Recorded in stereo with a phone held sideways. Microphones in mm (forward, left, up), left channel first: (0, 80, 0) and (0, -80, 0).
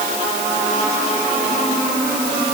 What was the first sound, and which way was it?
Only background noise.